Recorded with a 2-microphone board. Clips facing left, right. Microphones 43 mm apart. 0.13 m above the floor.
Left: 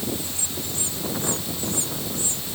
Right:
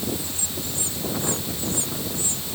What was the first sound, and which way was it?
Only background noise.